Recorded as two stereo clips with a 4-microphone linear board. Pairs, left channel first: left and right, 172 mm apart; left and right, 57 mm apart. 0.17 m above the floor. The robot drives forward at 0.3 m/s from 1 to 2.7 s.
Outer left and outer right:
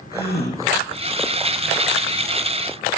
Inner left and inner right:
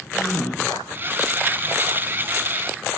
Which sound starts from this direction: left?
A gasp, at 0.1 s.